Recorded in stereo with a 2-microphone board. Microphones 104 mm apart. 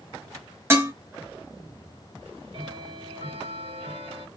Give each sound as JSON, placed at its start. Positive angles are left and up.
{"t": 0.7, "sound": "dishes clattering", "side_deg": -25, "distance_m": 0.7}
{"t": 2.2, "sound": "ticking", "side_deg": -55, "distance_m": 1.2}